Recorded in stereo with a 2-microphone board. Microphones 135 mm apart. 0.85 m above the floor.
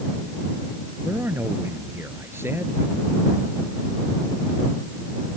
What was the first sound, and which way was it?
A man speaking, 15° right (ahead or behind).